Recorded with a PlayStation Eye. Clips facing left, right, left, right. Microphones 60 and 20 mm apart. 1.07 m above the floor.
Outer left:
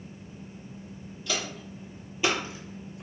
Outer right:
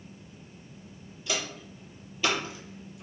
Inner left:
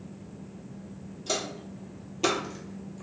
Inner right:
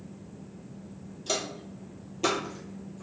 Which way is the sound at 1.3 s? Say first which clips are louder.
Even, even; 15° right (ahead or behind).